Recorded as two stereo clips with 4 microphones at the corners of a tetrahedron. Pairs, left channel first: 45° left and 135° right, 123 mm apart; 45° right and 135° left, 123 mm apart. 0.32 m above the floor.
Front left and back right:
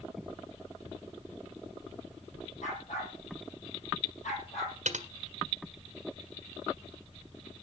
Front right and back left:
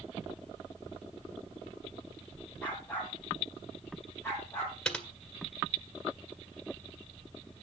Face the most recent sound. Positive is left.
turn(degrees=-130)